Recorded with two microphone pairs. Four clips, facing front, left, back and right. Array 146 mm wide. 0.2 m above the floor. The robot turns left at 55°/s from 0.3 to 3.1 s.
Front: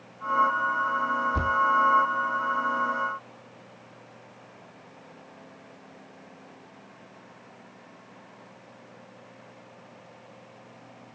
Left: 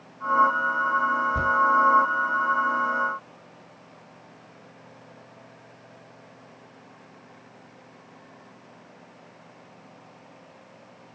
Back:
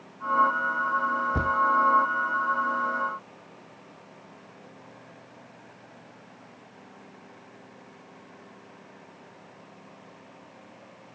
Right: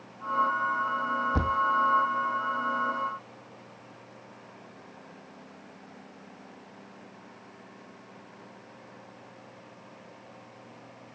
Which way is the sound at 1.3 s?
135° right.